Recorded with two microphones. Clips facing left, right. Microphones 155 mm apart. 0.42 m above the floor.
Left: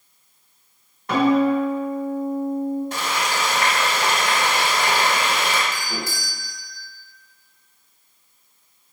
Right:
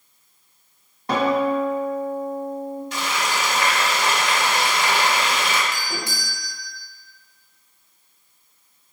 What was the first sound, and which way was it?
A guitar, 30° right (ahead or behind).